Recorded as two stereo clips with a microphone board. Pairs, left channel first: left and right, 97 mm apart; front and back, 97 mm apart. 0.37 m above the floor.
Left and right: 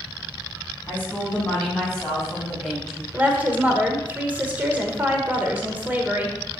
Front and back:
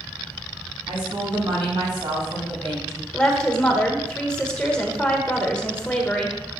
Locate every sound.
0.9 s a woman speaking: 160° left, 3.5 m; by 3.0 s 175° right, 2.5 m
3.1 s a woman speaking: 55° right, 1.2 m